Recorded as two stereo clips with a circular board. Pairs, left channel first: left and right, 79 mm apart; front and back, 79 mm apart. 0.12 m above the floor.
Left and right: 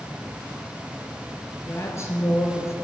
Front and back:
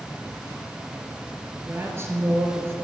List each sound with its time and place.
1.6 s a woman speaking: 135° left, 2.5 m